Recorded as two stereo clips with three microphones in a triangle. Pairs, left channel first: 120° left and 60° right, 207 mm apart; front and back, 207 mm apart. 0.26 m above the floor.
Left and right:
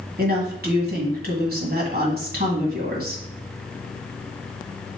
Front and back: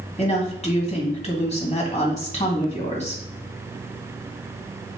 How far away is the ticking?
No ticking in this recording.